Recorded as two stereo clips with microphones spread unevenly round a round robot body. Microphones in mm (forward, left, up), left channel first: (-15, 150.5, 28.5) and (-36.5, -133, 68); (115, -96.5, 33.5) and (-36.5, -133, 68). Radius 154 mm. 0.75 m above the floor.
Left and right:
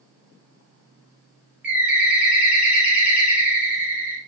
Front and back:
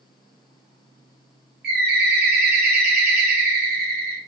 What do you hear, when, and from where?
1.6 s a bird: straight behind, 0.8 m